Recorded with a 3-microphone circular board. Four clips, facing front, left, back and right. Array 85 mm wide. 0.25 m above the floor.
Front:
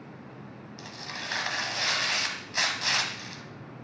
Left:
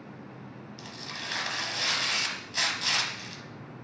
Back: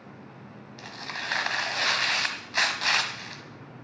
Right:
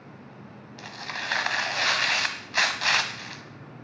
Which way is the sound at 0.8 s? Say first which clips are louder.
Right 8 dB, back 4 dB; 115° right.